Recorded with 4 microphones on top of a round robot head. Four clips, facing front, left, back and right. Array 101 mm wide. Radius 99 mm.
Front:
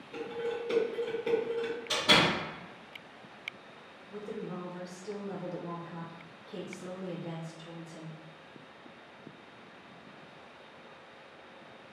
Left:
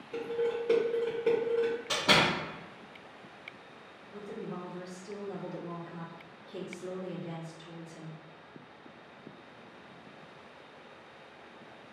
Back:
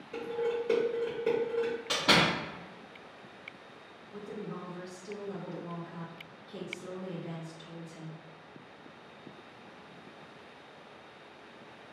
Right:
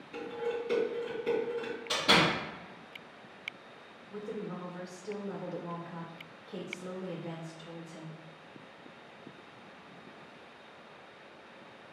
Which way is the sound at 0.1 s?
125° left.